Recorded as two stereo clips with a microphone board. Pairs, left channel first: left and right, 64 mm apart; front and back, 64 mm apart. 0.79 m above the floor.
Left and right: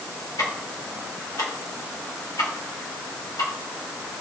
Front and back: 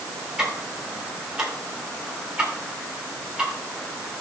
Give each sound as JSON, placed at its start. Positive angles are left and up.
{"t": 0.4, "sound": "ticking", "azimuth_deg": 100, "distance_m": 3.5}